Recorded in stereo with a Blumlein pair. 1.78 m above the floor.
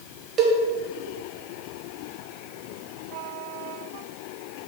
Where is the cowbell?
30° right, 1.1 m.